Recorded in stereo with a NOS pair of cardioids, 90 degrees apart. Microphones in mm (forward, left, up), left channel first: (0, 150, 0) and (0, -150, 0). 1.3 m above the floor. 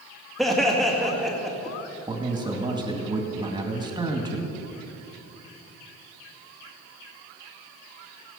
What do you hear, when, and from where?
0.4 s laughter: straight ahead, 1.9 m
2.1 s a man speaking: 15° right, 2.5 m